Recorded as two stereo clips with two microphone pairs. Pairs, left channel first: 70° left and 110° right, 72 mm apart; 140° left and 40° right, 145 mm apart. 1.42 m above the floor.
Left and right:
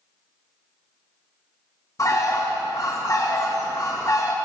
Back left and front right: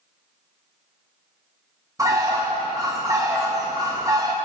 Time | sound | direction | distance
2.0 | a bird | 30° left | 1.2 m